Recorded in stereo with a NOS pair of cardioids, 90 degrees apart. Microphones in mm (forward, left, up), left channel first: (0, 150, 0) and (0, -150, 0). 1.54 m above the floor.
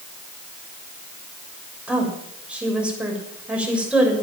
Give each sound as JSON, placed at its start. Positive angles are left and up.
{"t": 1.9, "sound": "a woman speaking", "azimuth_deg": -5, "distance_m": 7.0}